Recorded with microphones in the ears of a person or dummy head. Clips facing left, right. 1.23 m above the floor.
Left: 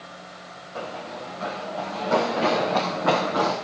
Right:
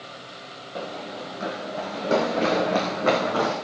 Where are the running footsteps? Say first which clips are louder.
Right 1 dB; 25° right (ahead or behind), 2.5 m; by 3.5 s 40° right (ahead or behind), 5 m.